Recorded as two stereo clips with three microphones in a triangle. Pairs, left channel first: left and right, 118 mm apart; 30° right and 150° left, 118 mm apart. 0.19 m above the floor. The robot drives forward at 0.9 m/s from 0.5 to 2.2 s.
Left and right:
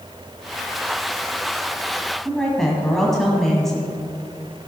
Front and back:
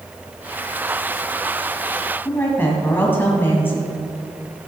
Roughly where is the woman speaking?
Ahead.